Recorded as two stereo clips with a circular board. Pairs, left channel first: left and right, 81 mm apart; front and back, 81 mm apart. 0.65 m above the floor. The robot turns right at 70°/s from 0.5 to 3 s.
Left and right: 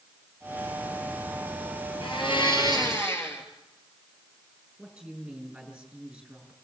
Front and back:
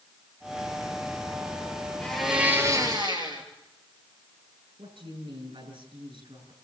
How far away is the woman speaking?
About 8.5 m.